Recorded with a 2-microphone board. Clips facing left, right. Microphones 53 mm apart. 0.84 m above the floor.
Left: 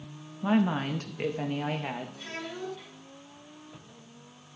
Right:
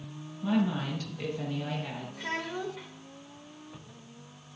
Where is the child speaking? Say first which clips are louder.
Right 4 dB; 85° right, 2 m.